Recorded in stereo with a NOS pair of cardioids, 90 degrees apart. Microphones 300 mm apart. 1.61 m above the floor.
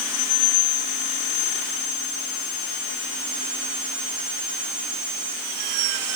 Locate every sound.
Only background noise.